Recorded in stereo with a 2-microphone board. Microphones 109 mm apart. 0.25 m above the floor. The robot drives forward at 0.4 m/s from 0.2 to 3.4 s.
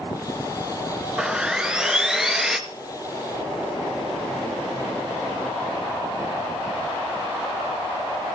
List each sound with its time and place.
1.2 s sawing: 5° right (ahead or behind), 1.1 m